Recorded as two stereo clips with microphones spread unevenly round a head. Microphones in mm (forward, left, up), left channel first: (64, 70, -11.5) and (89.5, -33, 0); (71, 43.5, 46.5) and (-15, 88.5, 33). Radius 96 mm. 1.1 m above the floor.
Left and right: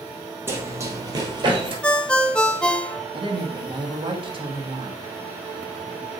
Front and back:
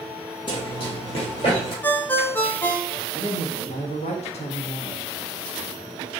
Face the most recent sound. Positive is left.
turn(degrees=-35)